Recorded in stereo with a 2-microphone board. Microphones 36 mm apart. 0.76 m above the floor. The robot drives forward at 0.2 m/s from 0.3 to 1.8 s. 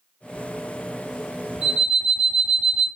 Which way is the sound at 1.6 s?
10° right (ahead or behind).